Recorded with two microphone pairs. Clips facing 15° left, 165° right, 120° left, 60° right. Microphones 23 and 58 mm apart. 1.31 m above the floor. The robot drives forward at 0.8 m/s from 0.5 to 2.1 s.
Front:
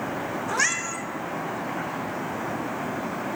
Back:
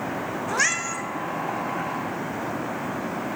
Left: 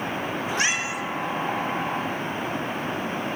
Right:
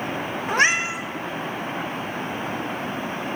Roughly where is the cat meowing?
Right.